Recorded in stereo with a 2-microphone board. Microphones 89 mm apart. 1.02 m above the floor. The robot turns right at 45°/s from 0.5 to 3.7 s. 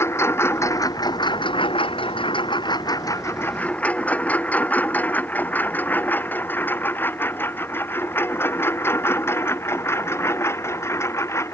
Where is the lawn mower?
30° left (ahead or behind).